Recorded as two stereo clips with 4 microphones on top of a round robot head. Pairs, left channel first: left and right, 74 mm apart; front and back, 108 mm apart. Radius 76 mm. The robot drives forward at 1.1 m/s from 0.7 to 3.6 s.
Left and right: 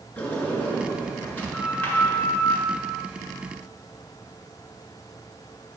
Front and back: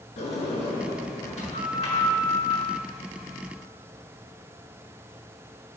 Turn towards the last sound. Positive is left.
turn(degrees=35)